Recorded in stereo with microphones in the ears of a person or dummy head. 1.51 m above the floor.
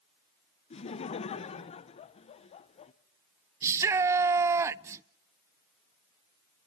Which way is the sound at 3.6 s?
15° right (ahead or behind).